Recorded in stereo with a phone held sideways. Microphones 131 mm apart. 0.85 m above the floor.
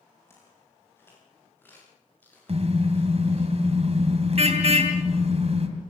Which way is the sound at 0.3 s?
20° left (ahead or behind).